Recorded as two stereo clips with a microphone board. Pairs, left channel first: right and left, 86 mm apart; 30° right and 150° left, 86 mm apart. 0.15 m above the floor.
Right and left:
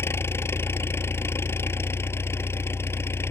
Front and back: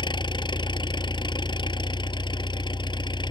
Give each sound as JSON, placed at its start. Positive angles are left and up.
{"t": 0.0, "sound": "an engine running", "azimuth_deg": -30}